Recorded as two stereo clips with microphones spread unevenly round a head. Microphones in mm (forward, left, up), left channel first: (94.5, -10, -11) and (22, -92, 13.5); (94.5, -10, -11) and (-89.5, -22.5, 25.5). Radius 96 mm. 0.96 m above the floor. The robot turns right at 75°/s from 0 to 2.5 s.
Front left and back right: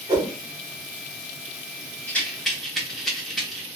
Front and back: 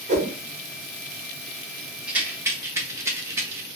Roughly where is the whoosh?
Behind.